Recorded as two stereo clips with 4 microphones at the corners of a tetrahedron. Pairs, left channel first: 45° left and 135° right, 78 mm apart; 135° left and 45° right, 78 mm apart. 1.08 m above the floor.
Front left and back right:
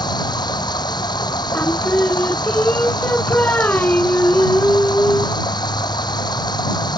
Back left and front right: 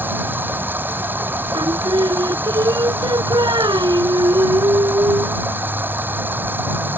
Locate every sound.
0.0 s running water: 20° left
1.5 s singing: 25° right